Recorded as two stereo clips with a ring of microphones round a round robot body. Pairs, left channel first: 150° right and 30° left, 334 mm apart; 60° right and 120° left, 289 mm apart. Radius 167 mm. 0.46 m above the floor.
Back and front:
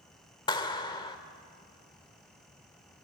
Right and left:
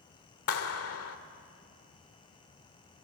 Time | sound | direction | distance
0.5 | a clap | 80° right | 1.5 m